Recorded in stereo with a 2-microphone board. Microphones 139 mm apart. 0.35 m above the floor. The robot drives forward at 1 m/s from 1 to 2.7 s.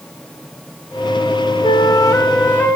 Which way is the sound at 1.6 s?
40° left (ahead or behind).